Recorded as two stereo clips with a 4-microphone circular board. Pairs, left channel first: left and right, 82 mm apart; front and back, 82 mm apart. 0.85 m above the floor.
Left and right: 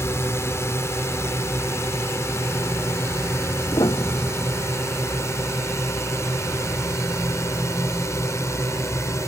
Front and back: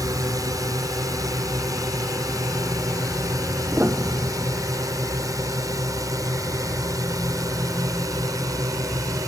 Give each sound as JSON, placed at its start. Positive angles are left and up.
{"t": 0.0, "sound": "a drone", "azimuth_deg": 140}
{"t": 3.7, "sound": "a piano", "azimuth_deg": 115}